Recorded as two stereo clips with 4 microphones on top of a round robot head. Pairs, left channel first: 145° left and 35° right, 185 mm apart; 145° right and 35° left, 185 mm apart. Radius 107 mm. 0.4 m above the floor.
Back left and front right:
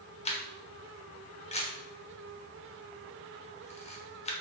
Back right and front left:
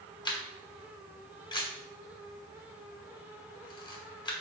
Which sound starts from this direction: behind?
A camera shutter, at 0.2 s.